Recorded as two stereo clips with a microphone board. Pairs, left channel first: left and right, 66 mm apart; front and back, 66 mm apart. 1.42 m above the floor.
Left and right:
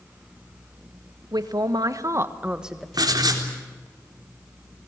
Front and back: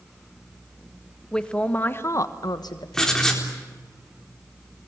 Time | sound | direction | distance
1.3 | a man speaking | 80° right | 2.0 m
2.9 | writing | 80° right | 4 m